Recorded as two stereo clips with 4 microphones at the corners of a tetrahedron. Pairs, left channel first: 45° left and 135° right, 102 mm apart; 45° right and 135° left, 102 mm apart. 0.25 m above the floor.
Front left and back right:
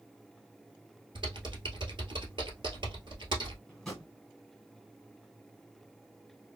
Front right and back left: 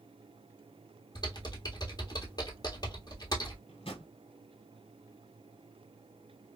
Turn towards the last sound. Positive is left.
turn(degrees=-40)